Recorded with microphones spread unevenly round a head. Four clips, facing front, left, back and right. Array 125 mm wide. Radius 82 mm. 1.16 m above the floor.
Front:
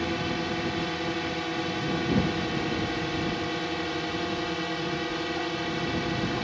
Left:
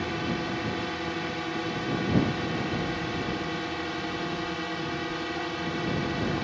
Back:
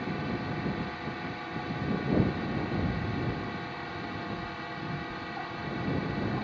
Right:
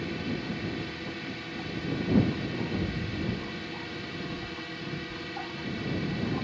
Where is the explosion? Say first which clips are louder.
Left 3 dB, front 3 dB; straight behind.